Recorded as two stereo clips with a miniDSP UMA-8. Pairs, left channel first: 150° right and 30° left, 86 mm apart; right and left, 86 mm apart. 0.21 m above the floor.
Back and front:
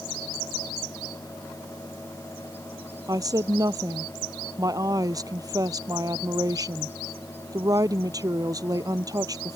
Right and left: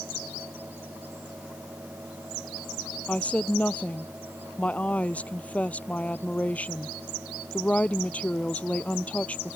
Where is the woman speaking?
15° right.